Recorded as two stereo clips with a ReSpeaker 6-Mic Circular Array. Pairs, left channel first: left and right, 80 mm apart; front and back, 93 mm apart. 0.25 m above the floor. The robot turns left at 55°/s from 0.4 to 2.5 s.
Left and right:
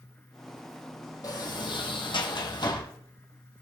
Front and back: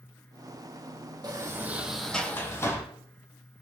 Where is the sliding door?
130° left, 2 m; by 2.8 s 60° left, 2 m.